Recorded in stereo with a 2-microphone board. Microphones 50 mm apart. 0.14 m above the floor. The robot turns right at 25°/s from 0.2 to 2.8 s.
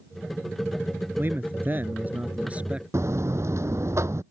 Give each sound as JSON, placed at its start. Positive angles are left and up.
{"t": 1.2, "sound": "a man speaking", "azimuth_deg": -70}
{"t": 2.9, "sound": "a buzzer", "side_deg": -75}